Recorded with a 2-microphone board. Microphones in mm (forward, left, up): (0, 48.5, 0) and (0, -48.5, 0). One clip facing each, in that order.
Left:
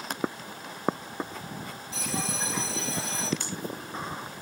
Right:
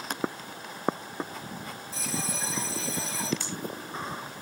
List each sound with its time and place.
1.9 s a bell: 70° left (ahead or behind), 4.5 m
3.4 s breathing: 60° left (ahead or behind), 6.5 m